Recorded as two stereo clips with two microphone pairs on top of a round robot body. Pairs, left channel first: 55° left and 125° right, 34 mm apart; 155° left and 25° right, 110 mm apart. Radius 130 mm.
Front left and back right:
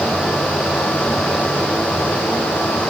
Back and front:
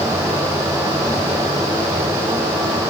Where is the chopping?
No chopping in this recording.